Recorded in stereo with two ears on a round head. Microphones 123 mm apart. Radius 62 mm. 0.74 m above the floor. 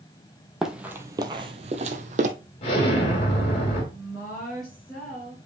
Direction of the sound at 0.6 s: 5° right (ahead or behind).